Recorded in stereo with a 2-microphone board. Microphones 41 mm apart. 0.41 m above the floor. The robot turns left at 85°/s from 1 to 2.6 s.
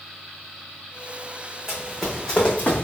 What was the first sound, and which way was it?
Running footsteps, 10° right (ahead or behind).